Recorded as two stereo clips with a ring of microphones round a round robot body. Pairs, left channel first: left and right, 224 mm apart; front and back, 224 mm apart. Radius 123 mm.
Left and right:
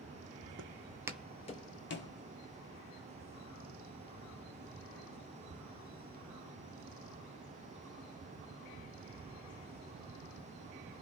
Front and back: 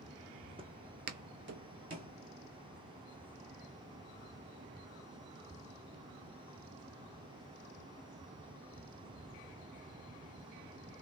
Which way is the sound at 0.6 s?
115° right.